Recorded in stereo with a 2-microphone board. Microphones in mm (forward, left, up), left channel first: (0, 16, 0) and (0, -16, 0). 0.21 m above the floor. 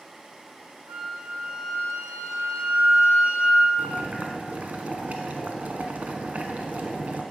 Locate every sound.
0.9 s a flute: 45° right (ahead or behind), 1.9 m
3.8 s boiling: 55° right (ahead or behind), 0.9 m